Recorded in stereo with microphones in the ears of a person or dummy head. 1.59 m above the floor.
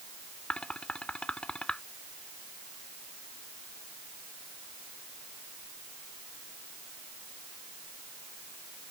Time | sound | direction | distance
0.5 | dishes clattering | 5° left (ahead or behind) | ?